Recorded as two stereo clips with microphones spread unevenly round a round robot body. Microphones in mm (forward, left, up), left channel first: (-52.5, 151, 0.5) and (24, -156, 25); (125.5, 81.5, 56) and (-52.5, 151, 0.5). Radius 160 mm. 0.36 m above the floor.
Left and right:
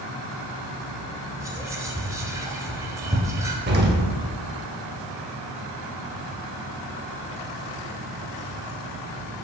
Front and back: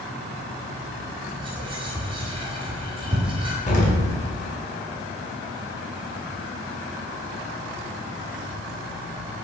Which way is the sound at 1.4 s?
160° right.